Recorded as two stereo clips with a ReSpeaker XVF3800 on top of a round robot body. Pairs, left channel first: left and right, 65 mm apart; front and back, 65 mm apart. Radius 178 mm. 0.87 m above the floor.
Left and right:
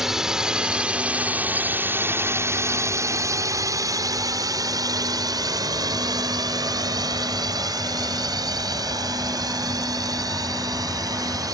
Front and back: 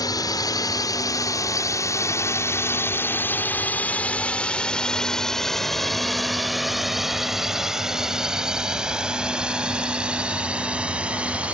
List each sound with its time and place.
0.0 s a drone: 5° right; by 11.5 s 110° right